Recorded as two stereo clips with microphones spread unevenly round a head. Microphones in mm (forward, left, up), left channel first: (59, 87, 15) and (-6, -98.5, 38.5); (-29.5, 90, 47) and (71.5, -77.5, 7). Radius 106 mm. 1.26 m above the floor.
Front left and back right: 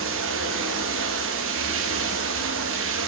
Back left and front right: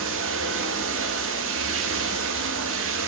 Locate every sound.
0.0 s running water: 90° right, 1.3 m